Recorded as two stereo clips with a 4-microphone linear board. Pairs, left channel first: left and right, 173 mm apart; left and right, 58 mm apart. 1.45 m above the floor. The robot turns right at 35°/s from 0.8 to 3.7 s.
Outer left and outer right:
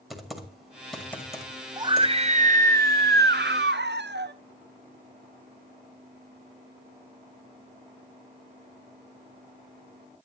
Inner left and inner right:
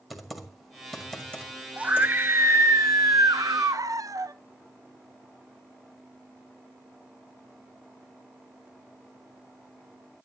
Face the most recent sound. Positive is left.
turn(degrees=-90)